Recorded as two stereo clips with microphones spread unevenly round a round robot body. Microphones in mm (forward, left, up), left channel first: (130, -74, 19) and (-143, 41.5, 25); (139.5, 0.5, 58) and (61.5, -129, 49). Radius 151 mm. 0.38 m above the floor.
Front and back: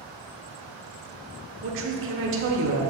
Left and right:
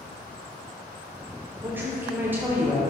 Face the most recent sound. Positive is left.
turn(degrees=170)